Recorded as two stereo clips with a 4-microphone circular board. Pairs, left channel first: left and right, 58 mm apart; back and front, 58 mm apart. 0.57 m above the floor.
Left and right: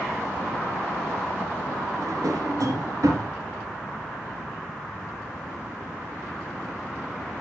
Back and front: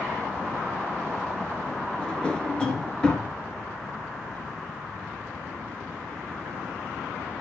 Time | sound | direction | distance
2.0 | a drawer | 105° right | 2.5 m